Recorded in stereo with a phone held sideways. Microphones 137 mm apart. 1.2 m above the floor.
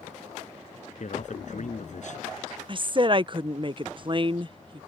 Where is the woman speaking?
40° right (ahead or behind).